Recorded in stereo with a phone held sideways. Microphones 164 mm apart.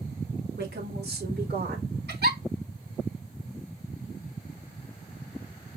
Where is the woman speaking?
85° right, 3 m; by 2.0 s 70° right (ahead or behind), 3 m.